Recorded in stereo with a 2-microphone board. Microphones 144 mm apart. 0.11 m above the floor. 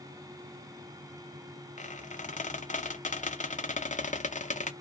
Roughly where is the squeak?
Left.